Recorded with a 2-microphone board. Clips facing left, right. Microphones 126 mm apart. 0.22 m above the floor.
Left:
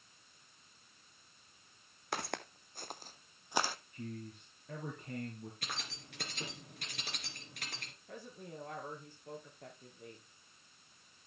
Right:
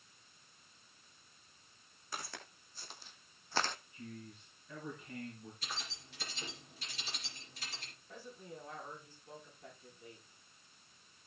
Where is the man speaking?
65° left (ahead or behind), 3 m.